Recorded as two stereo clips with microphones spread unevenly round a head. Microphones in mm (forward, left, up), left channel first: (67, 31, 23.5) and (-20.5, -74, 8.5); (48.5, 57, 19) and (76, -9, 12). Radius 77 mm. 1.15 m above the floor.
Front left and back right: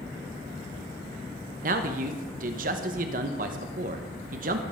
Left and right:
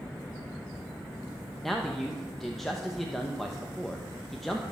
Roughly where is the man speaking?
Behind.